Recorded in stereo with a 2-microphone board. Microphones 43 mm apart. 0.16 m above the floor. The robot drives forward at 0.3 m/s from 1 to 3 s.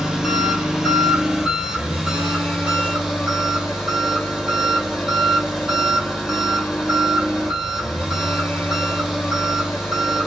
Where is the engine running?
15° right (ahead or behind), 0.9 m; by 10.3 s 10° right (ahead or behind), 1.5 m.